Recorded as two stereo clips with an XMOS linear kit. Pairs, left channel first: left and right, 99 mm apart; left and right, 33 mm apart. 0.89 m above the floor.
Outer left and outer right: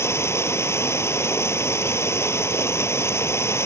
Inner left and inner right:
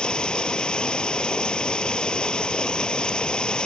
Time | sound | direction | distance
0.0 | running water | 25° left (ahead or behind) | ?